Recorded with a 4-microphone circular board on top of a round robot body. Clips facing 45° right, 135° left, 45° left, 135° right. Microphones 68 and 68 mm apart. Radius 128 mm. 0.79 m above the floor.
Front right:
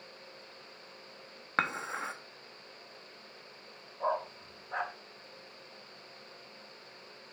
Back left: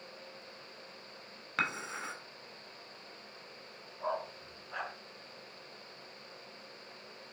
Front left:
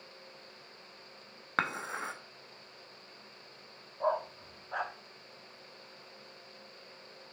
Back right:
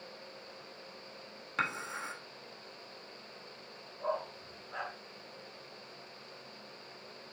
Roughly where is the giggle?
I don't hear a giggle.